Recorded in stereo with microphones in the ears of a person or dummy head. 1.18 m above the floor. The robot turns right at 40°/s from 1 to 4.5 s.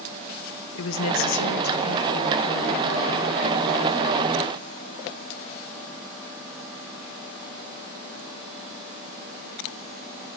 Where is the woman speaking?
100° left, 1.0 m; by 2.9 s straight behind, 1.0 m.